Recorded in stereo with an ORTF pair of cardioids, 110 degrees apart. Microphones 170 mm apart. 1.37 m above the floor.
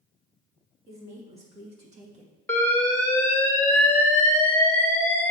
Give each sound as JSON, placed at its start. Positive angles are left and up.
{"t": 0.9, "sound": "a woman speaking", "azimuth_deg": -40, "distance_m": 2.5}
{"t": 2.5, "sound": "an alarm", "azimuth_deg": 10, "distance_m": 1.8}